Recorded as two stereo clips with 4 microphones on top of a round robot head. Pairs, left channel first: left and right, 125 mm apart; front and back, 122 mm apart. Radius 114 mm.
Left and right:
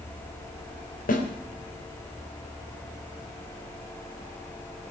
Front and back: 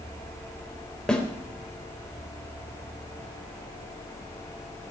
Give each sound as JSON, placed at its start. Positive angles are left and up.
{"t": 1.1, "sound": "a snare drum", "azimuth_deg": 85, "distance_m": 3.5}